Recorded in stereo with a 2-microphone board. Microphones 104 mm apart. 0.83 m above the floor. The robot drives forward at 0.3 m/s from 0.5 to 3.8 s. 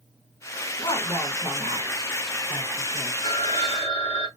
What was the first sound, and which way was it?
A woman speaking, 60° left (ahead or behind).